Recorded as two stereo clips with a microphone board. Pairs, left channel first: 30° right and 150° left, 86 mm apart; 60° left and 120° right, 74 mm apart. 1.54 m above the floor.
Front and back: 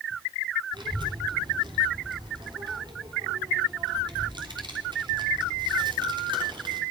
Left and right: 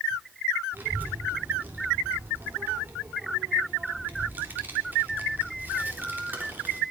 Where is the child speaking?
175° left, 3 m.